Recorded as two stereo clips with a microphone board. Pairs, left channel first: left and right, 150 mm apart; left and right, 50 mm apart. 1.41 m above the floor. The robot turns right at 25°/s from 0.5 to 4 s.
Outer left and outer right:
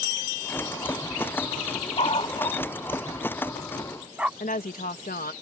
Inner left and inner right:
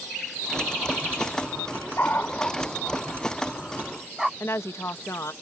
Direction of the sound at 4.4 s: 75° left (ahead or behind).